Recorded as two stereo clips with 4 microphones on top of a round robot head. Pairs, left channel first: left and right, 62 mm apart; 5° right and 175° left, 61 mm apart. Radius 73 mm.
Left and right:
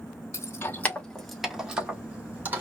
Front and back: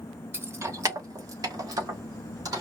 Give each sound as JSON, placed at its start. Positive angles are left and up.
{"t": 0.3, "sound": "keys jangling", "azimuth_deg": 125, "distance_m": 1.2}